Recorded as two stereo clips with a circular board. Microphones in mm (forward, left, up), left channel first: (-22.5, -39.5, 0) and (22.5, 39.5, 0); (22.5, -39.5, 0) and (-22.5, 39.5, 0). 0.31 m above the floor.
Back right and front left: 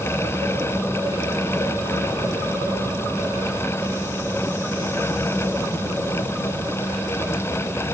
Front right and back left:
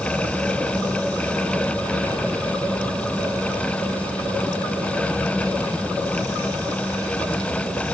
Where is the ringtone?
No ringtone in this recording.